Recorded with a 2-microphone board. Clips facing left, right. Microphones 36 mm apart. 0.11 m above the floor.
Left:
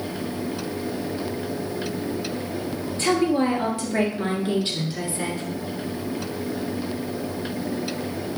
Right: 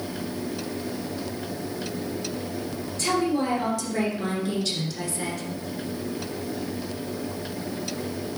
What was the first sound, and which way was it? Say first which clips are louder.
A woman speaking: left 3 dB; 30° left (ahead or behind).